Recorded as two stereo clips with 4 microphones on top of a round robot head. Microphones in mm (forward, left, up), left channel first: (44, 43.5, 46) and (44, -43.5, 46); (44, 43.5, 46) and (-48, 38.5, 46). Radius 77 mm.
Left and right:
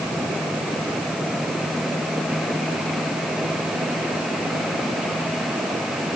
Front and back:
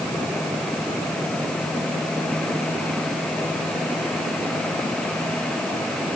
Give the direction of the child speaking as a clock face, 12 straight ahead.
No child speaking in this recording.